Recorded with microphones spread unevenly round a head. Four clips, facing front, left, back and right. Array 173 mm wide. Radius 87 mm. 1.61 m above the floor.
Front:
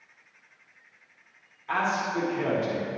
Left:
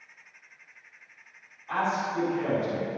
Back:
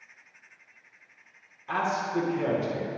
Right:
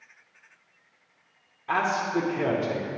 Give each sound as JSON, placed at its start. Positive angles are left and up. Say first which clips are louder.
{"t": 1.7, "sound": "a man speaking", "louder": "right 3 dB, front 1 dB", "azimuth_deg": -110, "distance_m": 2.0}